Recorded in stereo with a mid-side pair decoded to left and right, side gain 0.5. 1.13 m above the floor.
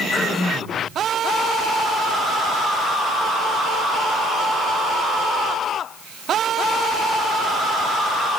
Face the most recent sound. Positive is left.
turn(degrees=0)